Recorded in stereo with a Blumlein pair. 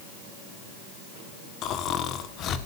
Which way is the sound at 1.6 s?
35° left.